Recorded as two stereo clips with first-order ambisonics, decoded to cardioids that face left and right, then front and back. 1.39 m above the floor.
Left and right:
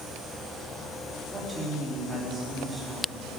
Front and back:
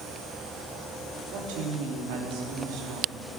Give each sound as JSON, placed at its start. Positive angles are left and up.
{"t": 1.3, "sound": "a woman speaking", "azimuth_deg": -170, "distance_m": 3.5}